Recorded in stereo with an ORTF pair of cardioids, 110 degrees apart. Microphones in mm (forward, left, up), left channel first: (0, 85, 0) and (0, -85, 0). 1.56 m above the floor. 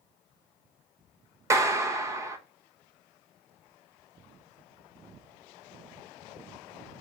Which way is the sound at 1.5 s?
20° right.